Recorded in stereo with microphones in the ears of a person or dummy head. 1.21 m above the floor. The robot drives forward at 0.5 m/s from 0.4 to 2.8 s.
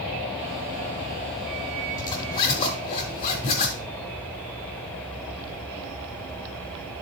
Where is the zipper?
20° left (ahead or behind), 1.1 m; by 3.8 s 25° left (ahead or behind), 1.0 m.